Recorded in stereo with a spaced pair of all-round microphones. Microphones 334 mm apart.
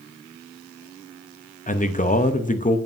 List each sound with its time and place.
1.7 s a man speaking: 25° left (ahead or behind), 0.6 m